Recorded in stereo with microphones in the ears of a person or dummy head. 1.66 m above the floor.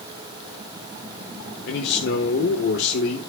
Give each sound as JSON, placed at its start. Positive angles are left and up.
{"t": 1.7, "sound": "a man speaking", "side_deg": 65, "distance_m": 2.0}